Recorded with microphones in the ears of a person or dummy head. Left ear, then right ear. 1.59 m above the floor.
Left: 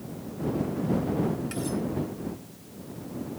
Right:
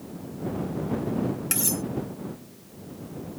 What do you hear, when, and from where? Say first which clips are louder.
1.5 s cutlery clinking: right 2 dB; 30° right (ahead or behind)